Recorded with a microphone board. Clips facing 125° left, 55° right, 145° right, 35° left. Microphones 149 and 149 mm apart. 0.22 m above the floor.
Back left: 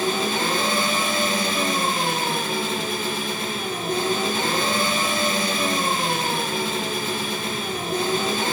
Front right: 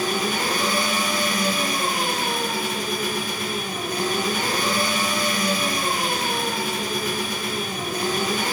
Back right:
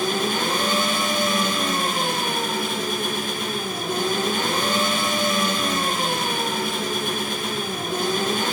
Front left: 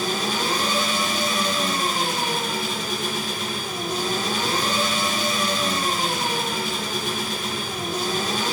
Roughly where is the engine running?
Behind.